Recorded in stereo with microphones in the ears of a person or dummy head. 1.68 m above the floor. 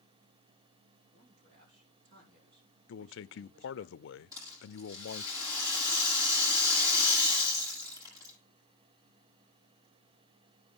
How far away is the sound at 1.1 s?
About 7 m.